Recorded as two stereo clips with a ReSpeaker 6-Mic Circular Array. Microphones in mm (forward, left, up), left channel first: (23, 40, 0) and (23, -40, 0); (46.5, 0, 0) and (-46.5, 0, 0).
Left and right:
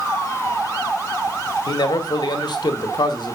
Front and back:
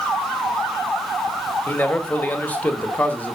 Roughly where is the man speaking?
Left.